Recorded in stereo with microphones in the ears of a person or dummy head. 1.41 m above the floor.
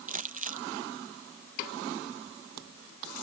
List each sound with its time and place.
0.1 s crumpling: 35° right (ahead or behind)